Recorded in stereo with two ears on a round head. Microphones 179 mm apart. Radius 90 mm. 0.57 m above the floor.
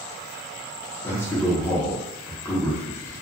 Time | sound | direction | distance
1.0 | a man speaking | 10° left (ahead or behind) | 0.9 m